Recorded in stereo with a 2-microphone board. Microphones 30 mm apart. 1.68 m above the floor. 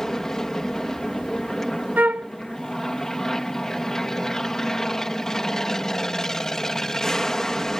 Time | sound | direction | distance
0.0 | an aircraft | 20° left (ahead or behind) | ?
2.0 | a flute | 65° right (ahead or behind) | ?